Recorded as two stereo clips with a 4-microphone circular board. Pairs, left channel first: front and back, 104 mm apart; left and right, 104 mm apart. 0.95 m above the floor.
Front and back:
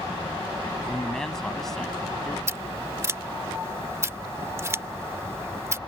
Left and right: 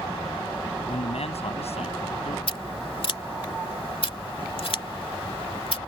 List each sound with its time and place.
0.8 s a man speaking: 85° left
2.5 s scissors: 120° left